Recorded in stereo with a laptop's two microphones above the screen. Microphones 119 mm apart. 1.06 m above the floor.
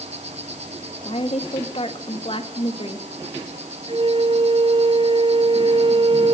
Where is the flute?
55° right (ahead or behind), 0.8 m.